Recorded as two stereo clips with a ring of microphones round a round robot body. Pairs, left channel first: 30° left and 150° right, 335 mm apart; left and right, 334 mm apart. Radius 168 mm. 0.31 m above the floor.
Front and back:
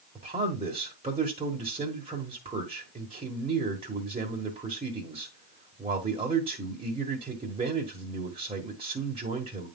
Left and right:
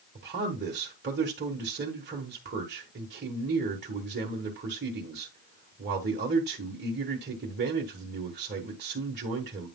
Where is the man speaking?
95° right, 1.4 m.